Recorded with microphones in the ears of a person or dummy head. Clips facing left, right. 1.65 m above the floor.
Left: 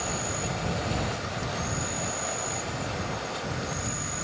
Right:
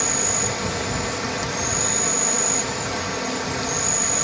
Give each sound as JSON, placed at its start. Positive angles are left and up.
{"t": 0.0, "sound": "an insect", "side_deg": -85}